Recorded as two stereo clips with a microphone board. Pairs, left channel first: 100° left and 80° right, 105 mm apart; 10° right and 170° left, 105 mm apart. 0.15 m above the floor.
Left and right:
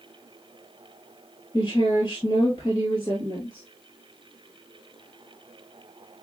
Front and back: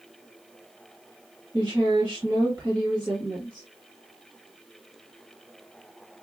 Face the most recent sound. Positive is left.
turn(degrees=130)